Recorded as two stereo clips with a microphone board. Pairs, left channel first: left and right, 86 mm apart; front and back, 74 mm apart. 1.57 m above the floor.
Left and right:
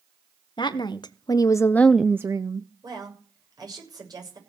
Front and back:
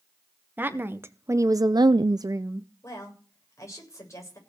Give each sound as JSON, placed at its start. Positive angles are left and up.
{"t": 0.6, "sound": "a woman speaking", "azimuth_deg": 115, "distance_m": 1.3}
{"t": 2.8, "sound": "a woman speaking", "azimuth_deg": -50, "distance_m": 7.5}